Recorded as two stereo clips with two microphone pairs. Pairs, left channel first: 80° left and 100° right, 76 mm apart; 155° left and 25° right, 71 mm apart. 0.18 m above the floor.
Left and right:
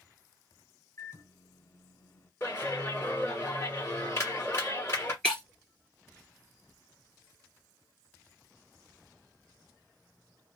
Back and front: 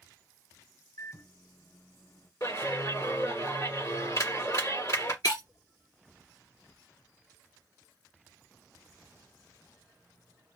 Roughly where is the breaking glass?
Behind.